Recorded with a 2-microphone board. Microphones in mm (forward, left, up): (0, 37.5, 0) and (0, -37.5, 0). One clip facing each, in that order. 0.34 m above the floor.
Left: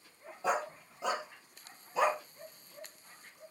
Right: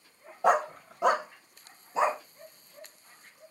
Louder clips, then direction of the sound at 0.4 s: Right 9 dB; 65° right (ahead or behind).